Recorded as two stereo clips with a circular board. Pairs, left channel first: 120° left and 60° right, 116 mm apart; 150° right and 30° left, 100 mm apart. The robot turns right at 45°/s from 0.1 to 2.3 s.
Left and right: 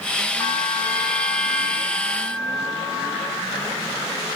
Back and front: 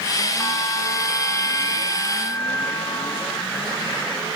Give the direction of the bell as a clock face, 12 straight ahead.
7 o'clock.